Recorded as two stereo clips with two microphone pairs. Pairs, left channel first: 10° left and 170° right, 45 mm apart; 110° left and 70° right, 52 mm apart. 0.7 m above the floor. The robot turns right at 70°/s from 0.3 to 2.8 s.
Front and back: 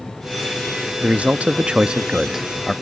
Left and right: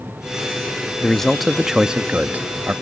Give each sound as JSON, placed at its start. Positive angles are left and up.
{"t": 1.0, "sound": "a man speaking", "azimuth_deg": 170}